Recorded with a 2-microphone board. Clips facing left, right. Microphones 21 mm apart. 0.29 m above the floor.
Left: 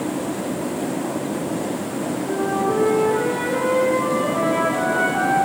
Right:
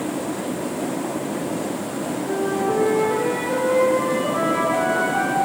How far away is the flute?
About 6 m.